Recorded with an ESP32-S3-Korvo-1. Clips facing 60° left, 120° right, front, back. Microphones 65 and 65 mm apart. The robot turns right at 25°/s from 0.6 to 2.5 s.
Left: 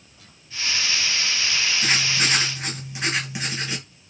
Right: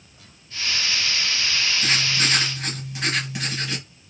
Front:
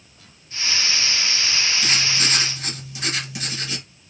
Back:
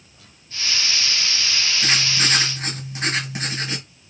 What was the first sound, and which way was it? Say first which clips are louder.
Writing: left 1 dB, back 1 dB; 125° left.